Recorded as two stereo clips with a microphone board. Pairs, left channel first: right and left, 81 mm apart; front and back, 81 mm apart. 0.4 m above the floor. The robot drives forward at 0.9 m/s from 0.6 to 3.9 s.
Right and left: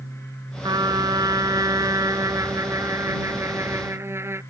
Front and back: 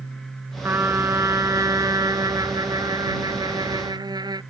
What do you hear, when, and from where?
0.6 s a trumpet: 120° left; by 4.4 s 145° left